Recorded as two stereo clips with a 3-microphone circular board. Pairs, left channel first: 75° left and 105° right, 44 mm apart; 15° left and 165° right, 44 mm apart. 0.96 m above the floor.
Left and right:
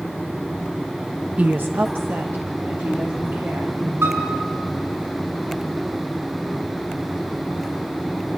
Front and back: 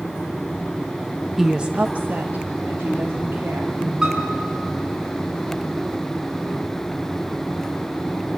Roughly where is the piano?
Right.